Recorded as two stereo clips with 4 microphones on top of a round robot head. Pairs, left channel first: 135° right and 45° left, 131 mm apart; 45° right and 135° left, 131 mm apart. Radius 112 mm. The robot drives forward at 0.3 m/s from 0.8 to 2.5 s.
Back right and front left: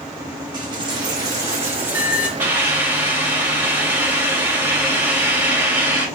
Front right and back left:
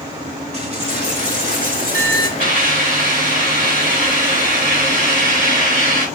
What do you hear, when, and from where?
0.5 s a dropped coin: 100° left, 1.3 m; by 2.3 s 125° left, 1.4 m
2.4 s a hiss: 120° left, 4.5 m